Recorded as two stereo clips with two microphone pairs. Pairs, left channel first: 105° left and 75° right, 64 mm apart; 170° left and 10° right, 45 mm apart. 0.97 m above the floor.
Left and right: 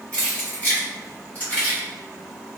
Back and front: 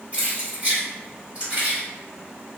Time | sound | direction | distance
0.1 | keys jangling | 40° left | 2.0 m